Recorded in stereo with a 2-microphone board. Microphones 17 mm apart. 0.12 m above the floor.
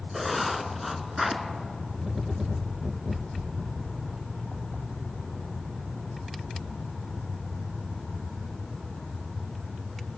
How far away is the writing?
About 0.6 m.